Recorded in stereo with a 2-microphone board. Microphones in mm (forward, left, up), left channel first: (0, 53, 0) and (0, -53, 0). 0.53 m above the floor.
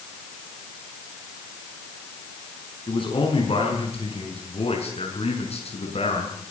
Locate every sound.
2.9 s a man speaking: 55° left (ahead or behind), 7 m; by 6.5 s 80° left, 7 m